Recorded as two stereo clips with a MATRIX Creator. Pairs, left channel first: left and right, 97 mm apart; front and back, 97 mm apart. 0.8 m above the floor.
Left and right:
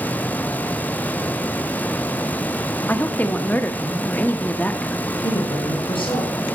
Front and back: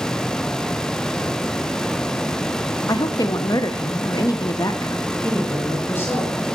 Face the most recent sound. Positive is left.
turn(degrees=75)